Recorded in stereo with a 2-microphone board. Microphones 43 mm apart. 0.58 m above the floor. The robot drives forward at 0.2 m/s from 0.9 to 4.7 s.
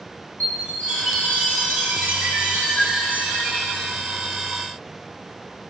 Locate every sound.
0.4 s a chime: 40° left (ahead or behind), 6.5 m